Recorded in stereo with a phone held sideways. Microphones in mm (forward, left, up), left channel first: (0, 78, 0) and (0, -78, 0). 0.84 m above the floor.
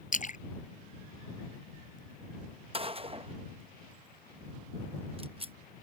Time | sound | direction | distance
0.1 | a splash | 55° left (ahead or behind) | ?
2.7 | a gunshot | 35° right (ahead or behind) | ?